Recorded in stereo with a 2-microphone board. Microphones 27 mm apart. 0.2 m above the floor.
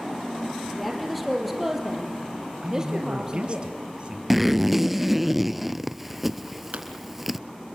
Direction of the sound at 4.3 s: 5° right (ahead or behind).